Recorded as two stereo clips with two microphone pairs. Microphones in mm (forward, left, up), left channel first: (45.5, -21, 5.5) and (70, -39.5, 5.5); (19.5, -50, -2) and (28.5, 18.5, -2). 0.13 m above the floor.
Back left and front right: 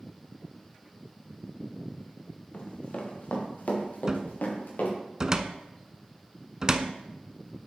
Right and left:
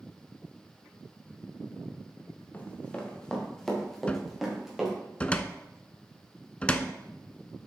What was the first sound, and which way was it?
Running footsteps, 160° right.